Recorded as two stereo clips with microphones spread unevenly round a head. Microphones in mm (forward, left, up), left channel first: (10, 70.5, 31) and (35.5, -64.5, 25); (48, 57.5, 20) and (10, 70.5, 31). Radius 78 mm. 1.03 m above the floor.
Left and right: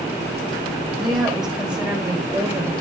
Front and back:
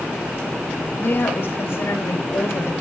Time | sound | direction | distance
0.9 | a woman speaking | 10° left | 5 m